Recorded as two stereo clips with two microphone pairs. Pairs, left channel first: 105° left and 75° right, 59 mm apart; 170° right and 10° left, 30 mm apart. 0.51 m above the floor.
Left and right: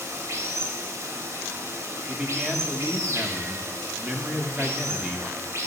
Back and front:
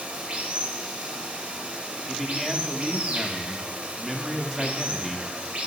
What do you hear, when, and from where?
0.0 s running water: 40° right, 0.8 m
2.1 s a man speaking: 55° right, 0.6 m